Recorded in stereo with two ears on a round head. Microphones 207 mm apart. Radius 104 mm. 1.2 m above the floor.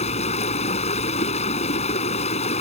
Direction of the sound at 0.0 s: 30° left (ahead or behind).